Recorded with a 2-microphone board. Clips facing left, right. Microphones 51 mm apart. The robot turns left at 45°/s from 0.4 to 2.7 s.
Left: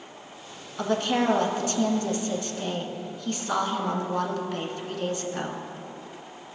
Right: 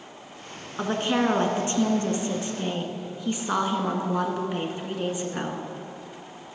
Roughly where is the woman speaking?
Right.